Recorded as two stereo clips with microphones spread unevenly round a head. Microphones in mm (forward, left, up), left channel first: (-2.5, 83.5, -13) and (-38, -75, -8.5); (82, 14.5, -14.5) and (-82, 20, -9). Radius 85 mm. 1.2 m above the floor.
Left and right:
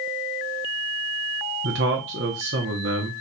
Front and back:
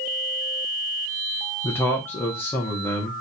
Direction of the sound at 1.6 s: 80° right.